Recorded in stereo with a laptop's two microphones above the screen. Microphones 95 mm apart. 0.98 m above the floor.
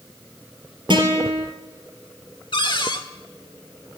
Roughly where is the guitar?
Right.